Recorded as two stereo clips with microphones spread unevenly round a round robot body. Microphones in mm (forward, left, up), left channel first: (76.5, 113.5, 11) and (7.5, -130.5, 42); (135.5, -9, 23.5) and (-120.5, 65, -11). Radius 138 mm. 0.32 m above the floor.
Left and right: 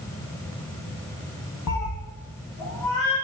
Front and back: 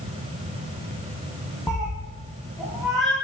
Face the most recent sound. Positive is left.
turn(degrees=75)